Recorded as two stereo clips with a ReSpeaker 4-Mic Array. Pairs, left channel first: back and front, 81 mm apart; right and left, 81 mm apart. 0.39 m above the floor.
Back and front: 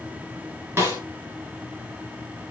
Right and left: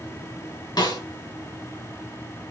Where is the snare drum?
60° right, 4 m.